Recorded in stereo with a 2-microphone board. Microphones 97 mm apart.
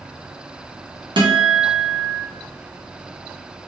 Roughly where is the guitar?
Right.